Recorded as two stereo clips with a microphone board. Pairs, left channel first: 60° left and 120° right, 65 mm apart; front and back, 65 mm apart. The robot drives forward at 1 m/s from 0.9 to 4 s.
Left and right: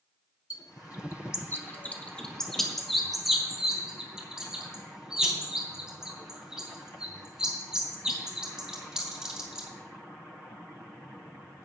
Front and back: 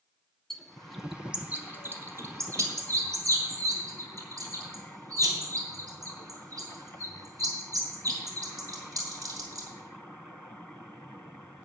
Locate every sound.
0.5 s a bird: 85° left, 1.1 m; by 9.7 s 160° left, 3 m